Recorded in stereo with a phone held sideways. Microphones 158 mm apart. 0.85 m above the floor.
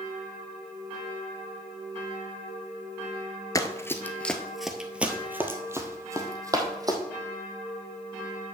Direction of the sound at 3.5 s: 20° left (ahead or behind).